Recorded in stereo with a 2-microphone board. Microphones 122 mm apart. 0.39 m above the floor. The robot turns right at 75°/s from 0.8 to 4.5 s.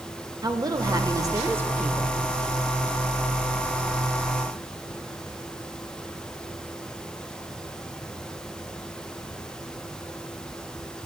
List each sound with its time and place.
0.4 s a woman speaking: 100° right, 1.0 m; by 2.2 s 5° left, 1.0 m